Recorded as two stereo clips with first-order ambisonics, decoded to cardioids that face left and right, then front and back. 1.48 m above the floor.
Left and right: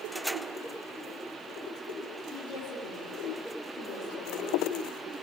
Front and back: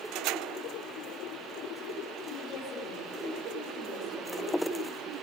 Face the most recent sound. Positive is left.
turn(degrees=65)